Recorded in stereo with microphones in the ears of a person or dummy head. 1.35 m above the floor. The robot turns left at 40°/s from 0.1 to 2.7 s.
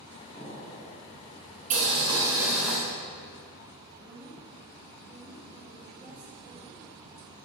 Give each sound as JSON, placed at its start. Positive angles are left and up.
{"t": 0.3, "sound": "an explosion", "side_deg": 10, "distance_m": 1.1}
{"t": 1.7, "sound": "boiling", "azimuth_deg": -140, "distance_m": 1.2}
{"t": 4.0, "sound": "a woman speaking", "side_deg": -10, "distance_m": 1.1}